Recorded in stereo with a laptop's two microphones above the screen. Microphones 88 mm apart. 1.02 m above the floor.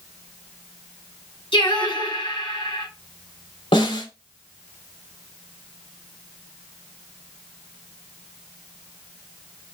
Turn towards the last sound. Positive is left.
turn(degrees=75)  # may be behind; listen again after turning